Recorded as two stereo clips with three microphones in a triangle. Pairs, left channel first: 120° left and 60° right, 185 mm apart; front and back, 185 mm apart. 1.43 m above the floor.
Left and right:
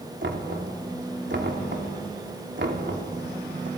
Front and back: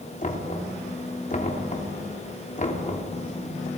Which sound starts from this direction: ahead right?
Knocking, at 0.2 s.